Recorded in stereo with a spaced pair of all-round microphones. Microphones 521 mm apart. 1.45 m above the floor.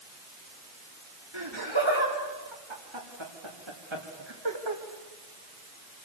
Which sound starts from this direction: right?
Laughter, at 1.3 s.